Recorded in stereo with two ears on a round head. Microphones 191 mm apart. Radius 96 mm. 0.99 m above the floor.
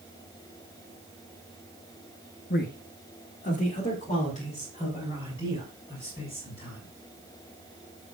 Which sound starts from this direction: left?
A man speaking, at 2.5 s.